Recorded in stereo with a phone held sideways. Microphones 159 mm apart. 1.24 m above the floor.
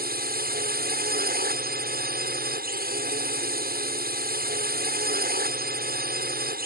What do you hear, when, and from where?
0.0 s a drone: 75° right (ahead or behind)